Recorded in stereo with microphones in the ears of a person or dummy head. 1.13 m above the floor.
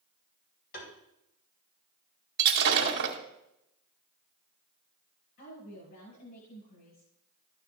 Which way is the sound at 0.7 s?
60° left (ahead or behind).